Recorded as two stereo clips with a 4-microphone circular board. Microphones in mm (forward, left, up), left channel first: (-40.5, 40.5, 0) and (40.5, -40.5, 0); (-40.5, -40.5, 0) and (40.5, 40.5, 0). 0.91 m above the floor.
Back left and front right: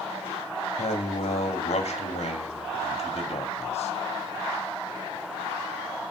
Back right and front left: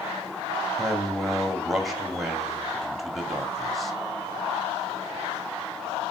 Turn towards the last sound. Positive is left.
turn(degrees=135)